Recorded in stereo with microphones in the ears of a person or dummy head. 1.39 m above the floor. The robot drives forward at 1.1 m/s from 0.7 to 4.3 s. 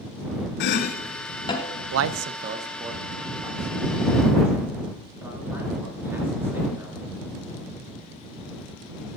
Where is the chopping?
65° left (ahead or behind), 0.6 m; by 1.8 s 20° left (ahead or behind), 1.6 m.